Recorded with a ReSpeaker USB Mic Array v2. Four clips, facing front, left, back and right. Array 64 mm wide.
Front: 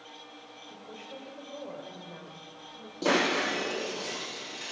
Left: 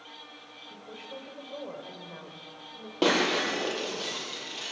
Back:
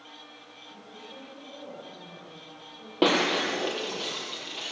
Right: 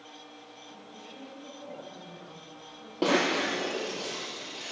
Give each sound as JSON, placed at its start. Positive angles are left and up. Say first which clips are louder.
{"t": 0.7, "sound": "a woman speaking", "louder": "left 7 dB, front 1 dB", "azimuth_deg": 60, "distance_m": 6.5}
{"t": 3.0, "sound": "breaking glass", "louder": "left 1 dB, back 2 dB", "azimuth_deg": 165, "distance_m": 8.5}